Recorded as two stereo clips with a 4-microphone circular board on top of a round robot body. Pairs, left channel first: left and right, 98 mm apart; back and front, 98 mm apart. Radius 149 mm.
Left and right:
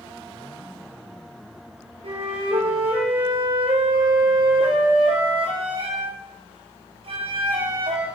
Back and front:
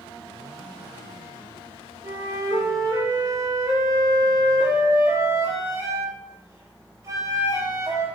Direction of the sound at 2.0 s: 60° right.